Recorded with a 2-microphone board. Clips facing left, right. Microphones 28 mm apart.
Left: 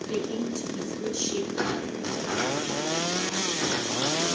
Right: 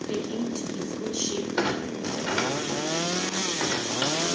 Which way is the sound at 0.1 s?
35° right (ahead or behind).